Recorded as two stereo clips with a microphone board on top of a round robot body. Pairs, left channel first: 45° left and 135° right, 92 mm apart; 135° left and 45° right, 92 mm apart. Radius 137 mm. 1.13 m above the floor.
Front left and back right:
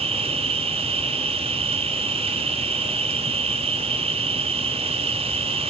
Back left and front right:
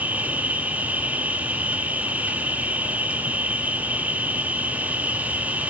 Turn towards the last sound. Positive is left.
turn(degrees=-120)